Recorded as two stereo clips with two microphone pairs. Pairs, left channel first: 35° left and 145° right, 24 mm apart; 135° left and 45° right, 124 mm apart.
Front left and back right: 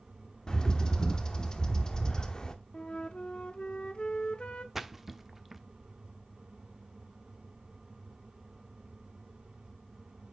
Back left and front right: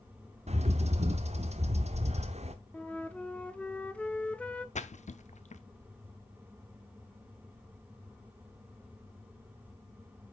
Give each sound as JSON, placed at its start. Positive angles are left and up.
{"t": 0.5, "sound": "a bird", "azimuth_deg": -25, "distance_m": 0.9}
{"t": 2.7, "sound": "a flute", "azimuth_deg": 60, "distance_m": 0.7}
{"t": 4.8, "sound": "a splash", "azimuth_deg": 140, "distance_m": 0.6}